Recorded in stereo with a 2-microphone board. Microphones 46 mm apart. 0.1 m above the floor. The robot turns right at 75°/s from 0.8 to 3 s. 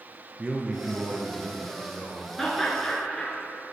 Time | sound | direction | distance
0.4 | a man speaking | 25° right (ahead or behind) | 1.3 m
2.4 | laughter | centre (ahead or behind) | 1.2 m